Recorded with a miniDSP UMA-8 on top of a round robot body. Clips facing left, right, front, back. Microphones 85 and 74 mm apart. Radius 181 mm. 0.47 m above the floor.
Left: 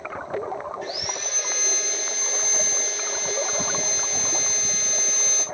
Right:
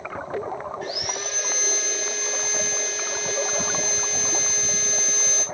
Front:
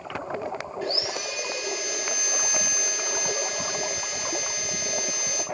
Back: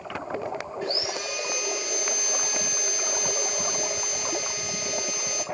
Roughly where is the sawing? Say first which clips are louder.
Right 1 dB, front 1 dB; behind right.